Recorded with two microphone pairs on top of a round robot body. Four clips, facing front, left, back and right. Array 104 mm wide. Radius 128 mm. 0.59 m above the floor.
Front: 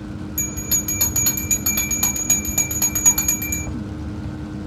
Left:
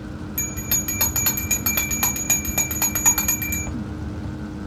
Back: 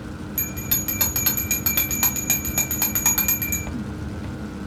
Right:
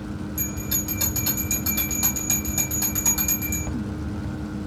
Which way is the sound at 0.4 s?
95° left.